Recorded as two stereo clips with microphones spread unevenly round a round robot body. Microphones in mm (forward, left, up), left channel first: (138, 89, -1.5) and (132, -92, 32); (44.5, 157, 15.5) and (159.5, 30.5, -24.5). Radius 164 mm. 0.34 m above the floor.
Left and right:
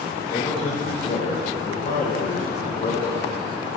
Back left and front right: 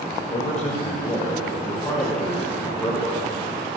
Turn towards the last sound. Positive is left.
turn(degrees=45)